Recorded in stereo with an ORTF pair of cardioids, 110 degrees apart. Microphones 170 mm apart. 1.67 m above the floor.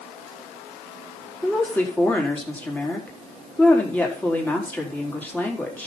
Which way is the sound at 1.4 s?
10° left.